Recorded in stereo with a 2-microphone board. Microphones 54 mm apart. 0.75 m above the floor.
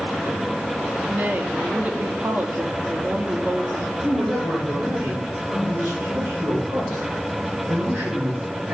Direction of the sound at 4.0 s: 50° right (ahead or behind).